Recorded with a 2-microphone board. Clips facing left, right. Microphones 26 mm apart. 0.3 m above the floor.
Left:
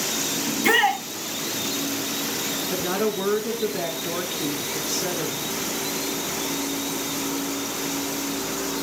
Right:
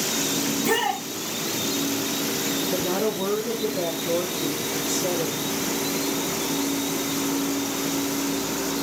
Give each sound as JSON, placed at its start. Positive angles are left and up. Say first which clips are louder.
{"t": 0.5, "sound": "a shout", "louder": "left 6 dB", "side_deg": 75, "distance_m": 4.0}
{"t": 2.7, "sound": "a woman speaking", "louder": "left 2 dB", "side_deg": 55, "distance_m": 3.5}